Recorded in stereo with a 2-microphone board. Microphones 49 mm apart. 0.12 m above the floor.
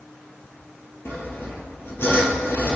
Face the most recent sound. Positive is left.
turn(degrees=55)  # may be behind; listen again after turning